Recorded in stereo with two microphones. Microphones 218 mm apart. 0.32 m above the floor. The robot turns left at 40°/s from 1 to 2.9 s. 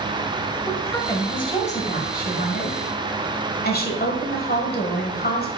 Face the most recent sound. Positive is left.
turn(degrees=85)